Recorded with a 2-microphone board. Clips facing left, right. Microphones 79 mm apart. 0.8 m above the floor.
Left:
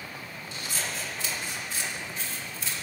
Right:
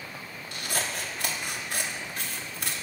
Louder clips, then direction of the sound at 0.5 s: Right 3 dB; 60° right (ahead or behind).